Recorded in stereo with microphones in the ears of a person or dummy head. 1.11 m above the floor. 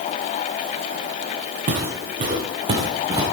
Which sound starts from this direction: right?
Footsteps, at 1.7 s.